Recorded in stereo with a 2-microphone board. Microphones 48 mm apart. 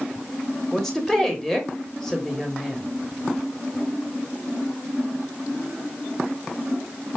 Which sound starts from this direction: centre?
A woman speaking, at 0.7 s.